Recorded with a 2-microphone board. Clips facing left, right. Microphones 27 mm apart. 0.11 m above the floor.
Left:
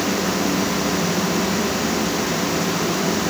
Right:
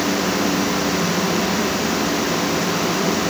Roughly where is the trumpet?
No trumpet in this recording.